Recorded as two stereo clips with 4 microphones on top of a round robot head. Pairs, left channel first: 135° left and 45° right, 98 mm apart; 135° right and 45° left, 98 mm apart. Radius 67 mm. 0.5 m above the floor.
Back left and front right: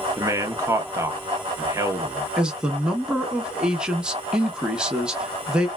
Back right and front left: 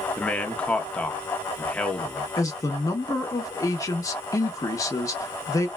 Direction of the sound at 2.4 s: 120° right.